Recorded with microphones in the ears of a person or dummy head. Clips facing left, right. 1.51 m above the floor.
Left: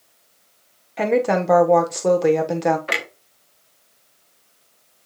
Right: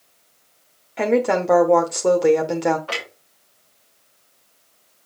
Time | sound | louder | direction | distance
1.0 | a woman speaking | even | 5° right (ahead or behind) | 1.1 m
2.9 | a clunk | left 2 dB | 25° left (ahead or behind) | 1.0 m